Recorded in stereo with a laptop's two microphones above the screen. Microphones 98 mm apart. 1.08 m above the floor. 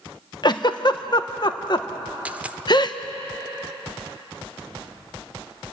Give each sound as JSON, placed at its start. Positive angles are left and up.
{"t": 0.4, "sound": "a giggle", "side_deg": 45, "distance_m": 0.8}
{"t": 2.2, "sound": "a dropped coin", "side_deg": -15, "distance_m": 0.8}